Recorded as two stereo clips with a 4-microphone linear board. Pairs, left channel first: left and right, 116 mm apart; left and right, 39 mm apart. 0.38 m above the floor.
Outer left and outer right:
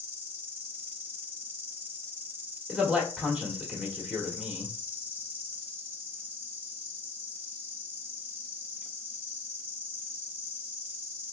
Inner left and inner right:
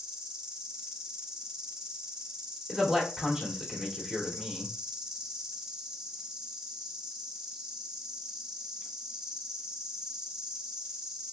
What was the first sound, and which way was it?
An insect, 15° right (ahead or behind).